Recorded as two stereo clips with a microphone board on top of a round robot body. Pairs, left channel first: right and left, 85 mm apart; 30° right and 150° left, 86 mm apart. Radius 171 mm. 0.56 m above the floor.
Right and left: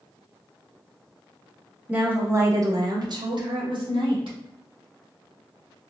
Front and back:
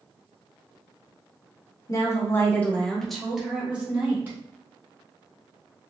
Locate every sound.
1.9 s a woman speaking: 15° left, 1.3 m; by 4.3 s 80° left, 2 m